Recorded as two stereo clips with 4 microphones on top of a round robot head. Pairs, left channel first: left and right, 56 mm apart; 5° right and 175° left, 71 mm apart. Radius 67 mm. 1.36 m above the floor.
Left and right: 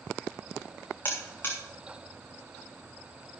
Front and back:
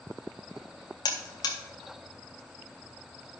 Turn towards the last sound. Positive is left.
turn(degrees=20)